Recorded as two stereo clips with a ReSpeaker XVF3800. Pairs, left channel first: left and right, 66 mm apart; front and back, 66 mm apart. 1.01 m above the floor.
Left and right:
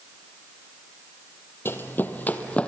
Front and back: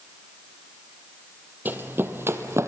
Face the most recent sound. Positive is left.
turn(degrees=155)